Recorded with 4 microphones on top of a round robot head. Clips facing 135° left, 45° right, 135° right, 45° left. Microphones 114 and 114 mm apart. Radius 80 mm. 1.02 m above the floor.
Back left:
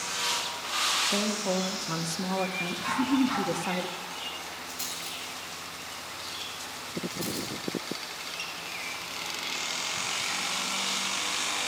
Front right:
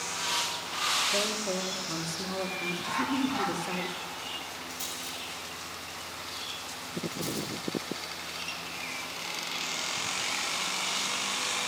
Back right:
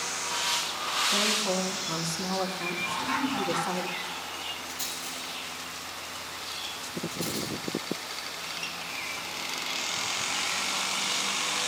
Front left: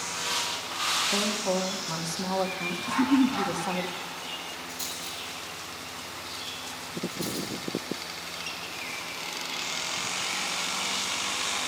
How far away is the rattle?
About 8.5 m.